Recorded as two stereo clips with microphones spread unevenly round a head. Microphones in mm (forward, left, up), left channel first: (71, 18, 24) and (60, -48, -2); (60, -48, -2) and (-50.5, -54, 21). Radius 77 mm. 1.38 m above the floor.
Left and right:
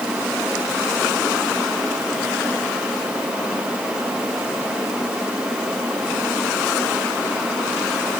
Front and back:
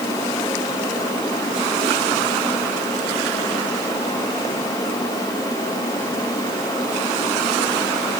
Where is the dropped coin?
No dropped coin in this recording.